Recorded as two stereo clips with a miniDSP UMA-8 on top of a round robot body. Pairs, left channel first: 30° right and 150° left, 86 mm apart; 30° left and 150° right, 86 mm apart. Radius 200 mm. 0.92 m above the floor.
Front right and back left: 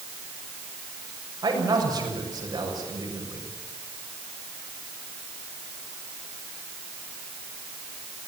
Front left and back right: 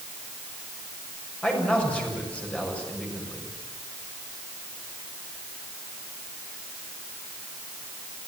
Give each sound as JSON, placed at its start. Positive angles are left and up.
{"t": 1.4, "sound": "a man speaking", "azimuth_deg": 105, "distance_m": 7.0}